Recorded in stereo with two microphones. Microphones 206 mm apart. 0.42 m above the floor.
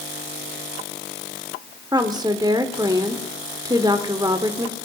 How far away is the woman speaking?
About 1.0 m.